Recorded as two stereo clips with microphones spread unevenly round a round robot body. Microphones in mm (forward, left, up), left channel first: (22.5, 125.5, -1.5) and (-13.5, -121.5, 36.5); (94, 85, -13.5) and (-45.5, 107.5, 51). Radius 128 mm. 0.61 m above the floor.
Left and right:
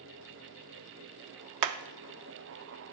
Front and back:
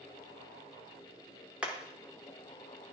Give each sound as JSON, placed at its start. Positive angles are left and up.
{"t": 1.6, "sound": "hammering", "azimuth_deg": -95, "distance_m": 0.7}